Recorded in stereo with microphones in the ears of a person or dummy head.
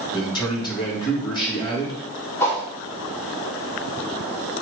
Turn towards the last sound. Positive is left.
turn(degrees=10)  # may be behind; listen again after turning